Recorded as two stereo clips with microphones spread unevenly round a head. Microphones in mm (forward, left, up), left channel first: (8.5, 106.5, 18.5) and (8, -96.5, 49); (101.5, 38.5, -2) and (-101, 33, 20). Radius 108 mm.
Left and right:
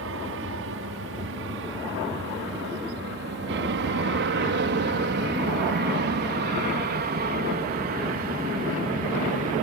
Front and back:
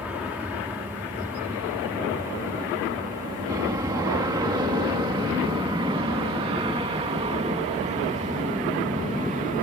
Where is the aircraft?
95° right; by 9.6 s 135° right.